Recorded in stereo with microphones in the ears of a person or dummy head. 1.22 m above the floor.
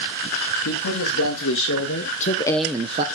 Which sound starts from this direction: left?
A man speaking, at 0.7 s.